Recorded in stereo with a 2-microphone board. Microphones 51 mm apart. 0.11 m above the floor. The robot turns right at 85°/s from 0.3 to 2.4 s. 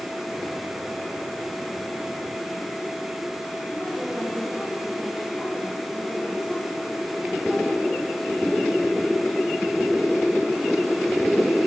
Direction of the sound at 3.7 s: 5° right (ahead or behind).